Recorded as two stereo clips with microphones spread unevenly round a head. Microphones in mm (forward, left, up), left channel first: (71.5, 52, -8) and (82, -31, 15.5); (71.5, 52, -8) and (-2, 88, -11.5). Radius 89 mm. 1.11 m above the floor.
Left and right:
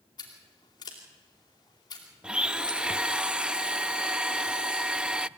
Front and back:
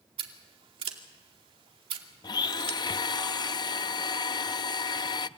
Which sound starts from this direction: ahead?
A blender, at 2.2 s.